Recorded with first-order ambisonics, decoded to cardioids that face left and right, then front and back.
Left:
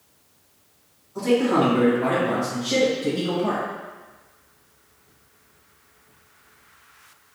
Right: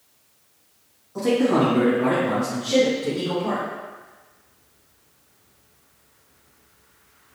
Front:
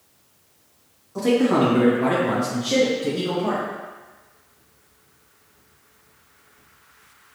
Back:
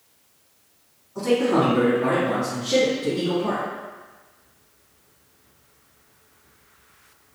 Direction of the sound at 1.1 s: 35° right.